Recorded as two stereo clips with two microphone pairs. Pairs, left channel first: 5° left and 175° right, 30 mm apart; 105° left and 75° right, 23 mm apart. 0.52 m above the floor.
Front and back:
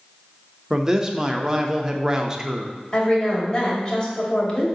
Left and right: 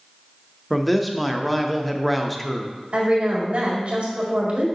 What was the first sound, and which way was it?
A man speaking, 170° right.